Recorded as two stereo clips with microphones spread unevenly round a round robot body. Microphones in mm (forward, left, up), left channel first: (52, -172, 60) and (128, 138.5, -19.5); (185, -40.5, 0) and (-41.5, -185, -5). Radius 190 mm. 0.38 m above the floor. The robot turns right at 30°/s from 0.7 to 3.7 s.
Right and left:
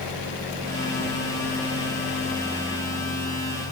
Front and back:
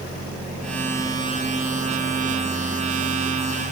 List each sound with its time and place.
Only background noise.